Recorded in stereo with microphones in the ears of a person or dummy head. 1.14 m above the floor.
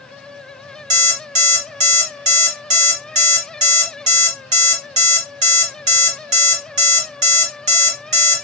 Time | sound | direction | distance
0.9 | an alarm clock | 30° right (ahead or behind) | 1.5 m